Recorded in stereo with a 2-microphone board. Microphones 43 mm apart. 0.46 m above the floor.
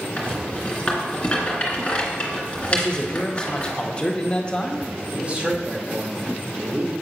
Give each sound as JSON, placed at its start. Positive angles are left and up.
{"t": 0.2, "sound": "a rattle", "side_deg": 30, "distance_m": 2.0}
{"t": 2.7, "sound": "a man speaking", "side_deg": 25, "distance_m": 0.9}
{"t": 5.1, "sound": "a man speaking", "side_deg": -30, "distance_m": 1.2}